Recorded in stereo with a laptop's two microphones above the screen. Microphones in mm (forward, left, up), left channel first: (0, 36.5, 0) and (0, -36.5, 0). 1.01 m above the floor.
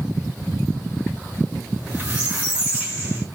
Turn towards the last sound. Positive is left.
turn(degrees=-15)  # may be behind; listen again after turning